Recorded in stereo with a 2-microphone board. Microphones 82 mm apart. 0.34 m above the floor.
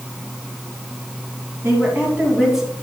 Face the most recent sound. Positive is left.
turn(degrees=0)  # may be behind; listen again after turning